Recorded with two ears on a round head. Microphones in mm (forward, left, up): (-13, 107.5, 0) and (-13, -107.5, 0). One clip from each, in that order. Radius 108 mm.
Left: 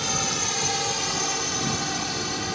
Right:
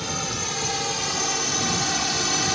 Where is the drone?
20° left (ahead or behind); by 2.5 s 30° right (ahead or behind).